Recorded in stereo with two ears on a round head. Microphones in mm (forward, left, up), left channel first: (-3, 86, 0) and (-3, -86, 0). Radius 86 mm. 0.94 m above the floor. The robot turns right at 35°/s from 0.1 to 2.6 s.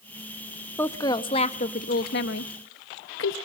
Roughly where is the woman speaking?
Centre.